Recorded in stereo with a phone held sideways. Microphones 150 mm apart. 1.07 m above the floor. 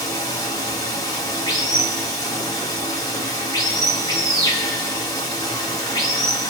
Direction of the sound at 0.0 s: 25° left (ahead or behind).